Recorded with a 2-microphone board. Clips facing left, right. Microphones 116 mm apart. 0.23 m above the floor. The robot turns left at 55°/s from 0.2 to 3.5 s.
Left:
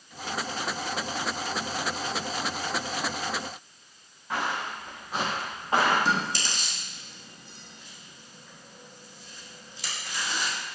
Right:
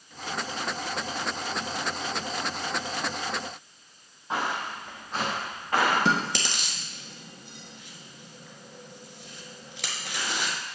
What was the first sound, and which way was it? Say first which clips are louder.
Footsteps: right 1 dB; 20° right (ahead or behind).